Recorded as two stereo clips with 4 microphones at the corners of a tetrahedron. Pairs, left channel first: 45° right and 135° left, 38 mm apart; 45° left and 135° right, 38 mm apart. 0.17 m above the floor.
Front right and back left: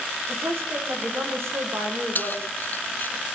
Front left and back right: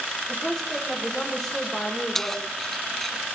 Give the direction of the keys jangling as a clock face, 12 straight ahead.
1 o'clock.